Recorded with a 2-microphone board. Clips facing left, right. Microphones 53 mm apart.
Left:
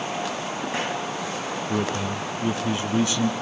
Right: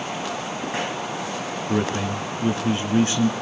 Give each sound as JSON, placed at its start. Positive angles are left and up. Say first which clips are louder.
{"t": 1.7, "sound": "a man speaking", "louder": "right 3 dB", "side_deg": -40, "distance_m": 3.0}